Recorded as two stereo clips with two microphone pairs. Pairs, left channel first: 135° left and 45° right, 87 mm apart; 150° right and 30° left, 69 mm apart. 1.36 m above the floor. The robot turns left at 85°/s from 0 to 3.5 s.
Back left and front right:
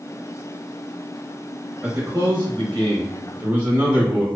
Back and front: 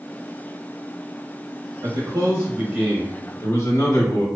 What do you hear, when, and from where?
1.8 s a man speaking: 40° left, 0.8 m; by 4.2 s 105° right, 0.8 m